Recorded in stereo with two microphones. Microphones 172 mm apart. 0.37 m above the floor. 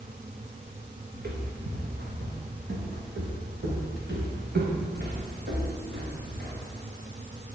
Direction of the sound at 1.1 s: 80° right.